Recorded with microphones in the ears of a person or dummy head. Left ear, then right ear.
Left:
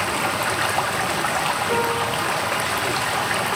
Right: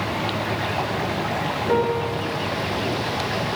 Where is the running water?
50° left (ahead or behind), 1.3 m.